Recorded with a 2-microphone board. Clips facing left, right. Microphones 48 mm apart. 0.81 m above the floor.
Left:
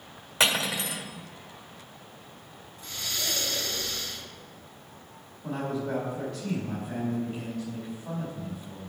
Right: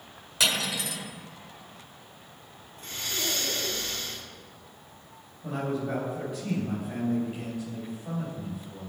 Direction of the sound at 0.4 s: 30° left (ahead or behind).